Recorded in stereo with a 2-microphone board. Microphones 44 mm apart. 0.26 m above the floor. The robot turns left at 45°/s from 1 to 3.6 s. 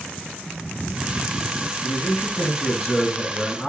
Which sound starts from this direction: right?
A man speaking, at 1.8 s.